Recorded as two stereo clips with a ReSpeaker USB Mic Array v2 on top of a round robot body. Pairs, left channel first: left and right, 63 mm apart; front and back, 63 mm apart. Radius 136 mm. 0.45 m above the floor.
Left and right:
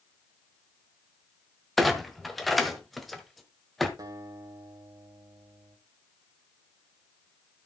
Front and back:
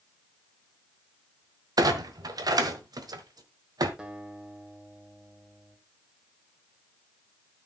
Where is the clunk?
Straight behind, 1.3 m.